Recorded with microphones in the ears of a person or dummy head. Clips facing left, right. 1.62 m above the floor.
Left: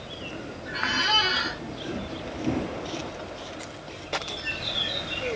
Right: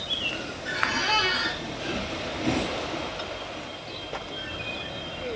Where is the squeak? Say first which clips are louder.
Right 1 dB; 5° left (ahead or behind), 0.8 m.